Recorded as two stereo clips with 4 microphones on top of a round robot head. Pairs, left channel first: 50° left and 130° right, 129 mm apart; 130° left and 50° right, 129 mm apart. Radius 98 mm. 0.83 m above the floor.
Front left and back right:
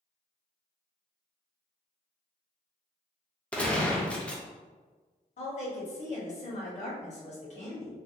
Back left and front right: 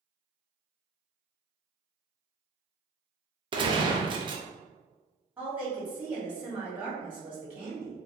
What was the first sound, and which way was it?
A gunshot, 25° right.